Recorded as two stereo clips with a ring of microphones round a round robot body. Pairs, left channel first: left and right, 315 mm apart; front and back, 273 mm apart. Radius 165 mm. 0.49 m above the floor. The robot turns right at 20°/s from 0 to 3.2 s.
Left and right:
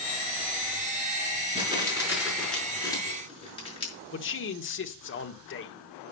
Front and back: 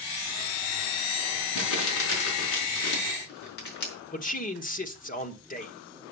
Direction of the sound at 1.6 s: 20° right.